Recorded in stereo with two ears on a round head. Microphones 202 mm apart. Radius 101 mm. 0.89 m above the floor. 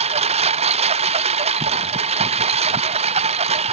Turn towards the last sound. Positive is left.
turn(degrees=-30)  # may be behind; listen again after turning